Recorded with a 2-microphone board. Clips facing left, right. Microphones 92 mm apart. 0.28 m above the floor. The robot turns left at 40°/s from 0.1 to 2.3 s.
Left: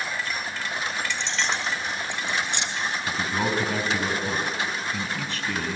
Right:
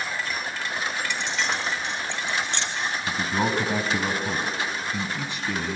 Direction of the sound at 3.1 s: 20° right (ahead or behind).